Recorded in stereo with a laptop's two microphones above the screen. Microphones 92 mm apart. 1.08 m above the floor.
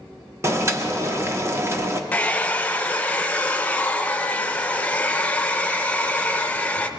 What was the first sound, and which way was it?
Boiling, 30° right (ahead or behind).